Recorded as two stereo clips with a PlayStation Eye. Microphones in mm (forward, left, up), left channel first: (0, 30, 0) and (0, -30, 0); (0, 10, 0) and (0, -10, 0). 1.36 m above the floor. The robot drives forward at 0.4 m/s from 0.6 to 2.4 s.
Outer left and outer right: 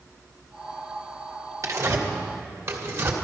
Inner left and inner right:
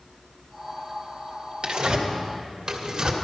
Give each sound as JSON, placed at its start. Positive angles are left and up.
{"t": 1.6, "sound": "tearing paper", "side_deg": -55, "distance_m": 1.5}